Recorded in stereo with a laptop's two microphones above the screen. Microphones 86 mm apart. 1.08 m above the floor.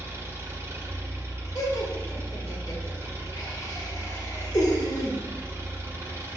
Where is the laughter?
45° left (ahead or behind), 1.3 m.